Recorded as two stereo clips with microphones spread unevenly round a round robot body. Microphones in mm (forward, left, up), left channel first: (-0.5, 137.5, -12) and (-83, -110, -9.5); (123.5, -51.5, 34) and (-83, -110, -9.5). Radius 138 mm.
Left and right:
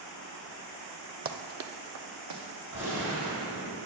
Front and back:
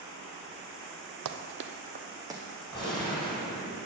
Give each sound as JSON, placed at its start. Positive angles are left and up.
{"t": 1.2, "sound": "running footsteps", "azimuth_deg": -165, "distance_m": 0.7}
{"t": 2.7, "sound": "a gunshot", "azimuth_deg": -60, "distance_m": 2.5}